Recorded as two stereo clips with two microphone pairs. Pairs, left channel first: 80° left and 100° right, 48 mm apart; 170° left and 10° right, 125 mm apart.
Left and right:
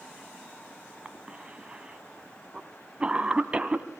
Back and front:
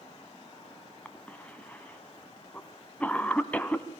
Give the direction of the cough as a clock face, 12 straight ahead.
4 o'clock.